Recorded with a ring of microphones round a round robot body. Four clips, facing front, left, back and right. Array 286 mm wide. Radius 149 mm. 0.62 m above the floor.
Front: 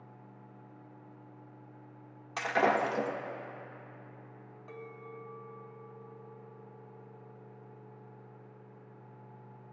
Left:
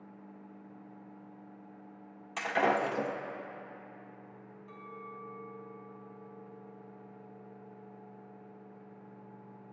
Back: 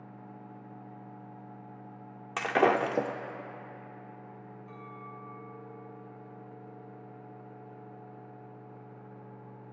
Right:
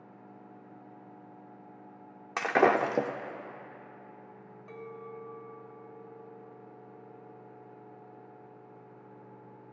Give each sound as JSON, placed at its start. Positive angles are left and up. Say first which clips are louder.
{"t": 2.4, "sound": "breaking glass", "louder": "right 5 dB, back 3 dB", "azimuth_deg": -120, "distance_m": 0.8}
{"t": 4.7, "sound": "a clink", "louder": "right 4 dB, front 2 dB", "azimuth_deg": -55, "distance_m": 2.5}